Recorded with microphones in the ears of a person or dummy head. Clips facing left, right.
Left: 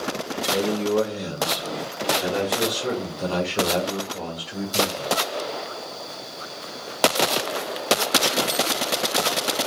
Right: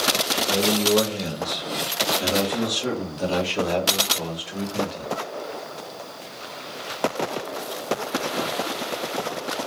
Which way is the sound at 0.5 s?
15° right (ahead or behind).